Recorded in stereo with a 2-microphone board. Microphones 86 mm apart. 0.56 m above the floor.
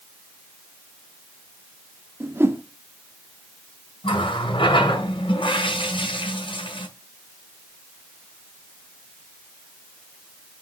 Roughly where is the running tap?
Left.